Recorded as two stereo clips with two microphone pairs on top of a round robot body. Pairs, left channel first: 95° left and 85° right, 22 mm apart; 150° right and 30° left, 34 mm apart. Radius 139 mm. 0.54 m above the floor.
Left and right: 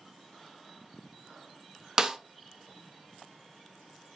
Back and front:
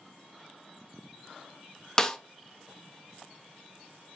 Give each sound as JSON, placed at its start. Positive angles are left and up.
{"t": 2.0, "sound": "a snare drum", "azimuth_deg": -150, "distance_m": 0.5}